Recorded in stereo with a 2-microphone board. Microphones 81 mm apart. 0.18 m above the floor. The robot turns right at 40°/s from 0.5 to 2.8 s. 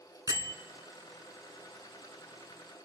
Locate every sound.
0.3 s a bell: 50° right (ahead or behind), 0.8 m